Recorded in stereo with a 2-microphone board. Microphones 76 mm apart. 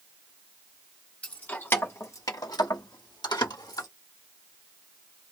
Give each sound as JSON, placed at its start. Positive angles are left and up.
{"t": 1.2, "sound": "keys jangling", "side_deg": 15, "distance_m": 1.4}